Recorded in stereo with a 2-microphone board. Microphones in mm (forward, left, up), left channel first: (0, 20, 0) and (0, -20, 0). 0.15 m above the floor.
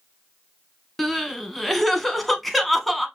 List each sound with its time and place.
1.0 s crying: 5° left (ahead or behind), 0.7 m